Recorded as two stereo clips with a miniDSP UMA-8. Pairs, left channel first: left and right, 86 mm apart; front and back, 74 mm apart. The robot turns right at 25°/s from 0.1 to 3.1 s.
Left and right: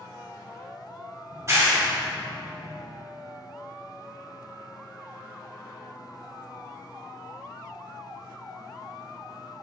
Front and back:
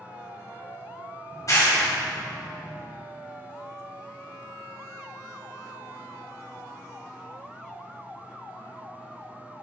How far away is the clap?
About 2 m.